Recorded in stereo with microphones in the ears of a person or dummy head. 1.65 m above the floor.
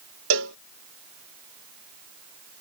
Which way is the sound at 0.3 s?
80° right.